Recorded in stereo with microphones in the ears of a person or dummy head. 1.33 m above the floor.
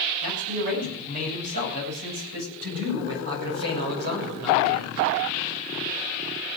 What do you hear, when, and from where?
0.2 s a man speaking: 45° right (ahead or behind), 9 m; by 5.1 s 65° right (ahead or behind), 6 m